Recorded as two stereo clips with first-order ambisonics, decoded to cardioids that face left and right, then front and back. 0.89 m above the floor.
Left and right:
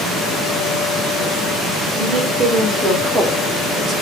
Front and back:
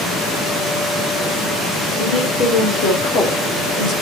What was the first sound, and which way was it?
A woman speaking, 10° right.